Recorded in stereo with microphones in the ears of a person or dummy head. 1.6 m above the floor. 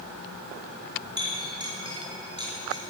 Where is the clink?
25° right (ahead or behind), 5 m.